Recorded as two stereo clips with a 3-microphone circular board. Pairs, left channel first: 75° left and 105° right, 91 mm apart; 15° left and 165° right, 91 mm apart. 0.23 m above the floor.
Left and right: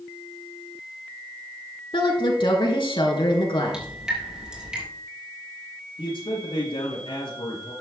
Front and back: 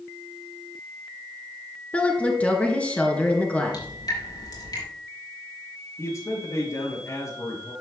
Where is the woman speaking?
90° left, 3 m.